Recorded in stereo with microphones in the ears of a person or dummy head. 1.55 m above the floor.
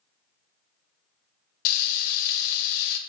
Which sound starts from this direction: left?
Frying, at 1.6 s.